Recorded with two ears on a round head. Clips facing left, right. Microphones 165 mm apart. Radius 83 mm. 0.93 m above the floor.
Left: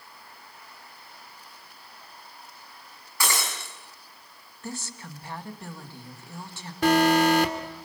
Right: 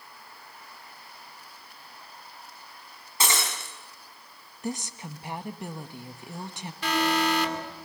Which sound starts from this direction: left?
An alarm, at 6.8 s.